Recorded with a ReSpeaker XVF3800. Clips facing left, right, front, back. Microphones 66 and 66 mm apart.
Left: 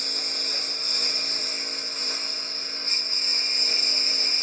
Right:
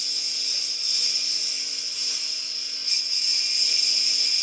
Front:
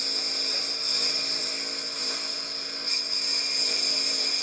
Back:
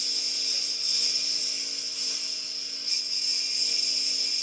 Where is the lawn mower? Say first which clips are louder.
Left 6 dB, front 6 dB; 45° left; by 4.4 s 35° left.